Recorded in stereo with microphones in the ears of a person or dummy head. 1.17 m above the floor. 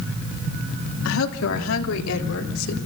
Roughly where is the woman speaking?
Left.